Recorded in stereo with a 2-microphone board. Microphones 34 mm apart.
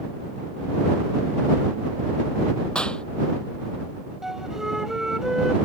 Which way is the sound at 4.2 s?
15° right (ahead or behind).